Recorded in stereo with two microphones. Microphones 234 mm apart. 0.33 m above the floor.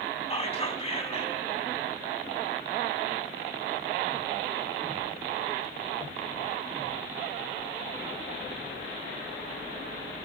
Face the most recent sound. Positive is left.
turn(degrees=25)  # may be behind; listen again after turning